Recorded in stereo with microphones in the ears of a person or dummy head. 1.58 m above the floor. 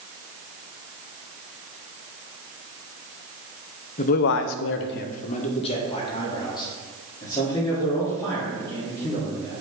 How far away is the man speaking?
About 0.8 m.